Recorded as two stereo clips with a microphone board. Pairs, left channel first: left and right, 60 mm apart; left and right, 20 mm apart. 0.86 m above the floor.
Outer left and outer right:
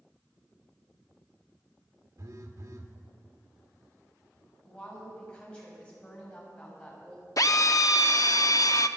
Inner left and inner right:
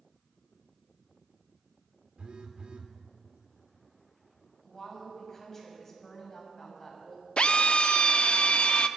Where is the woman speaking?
15° left (ahead or behind), 6.5 m.